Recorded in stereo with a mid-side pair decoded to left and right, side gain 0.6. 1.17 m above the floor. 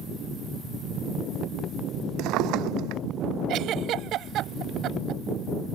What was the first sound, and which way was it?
A drawer, 70° right.